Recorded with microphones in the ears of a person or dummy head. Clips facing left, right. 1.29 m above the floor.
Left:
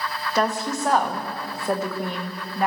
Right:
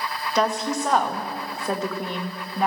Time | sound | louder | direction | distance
0.3 | a woman speaking | right 1 dB | centre (ahead or behind) | 1.1 m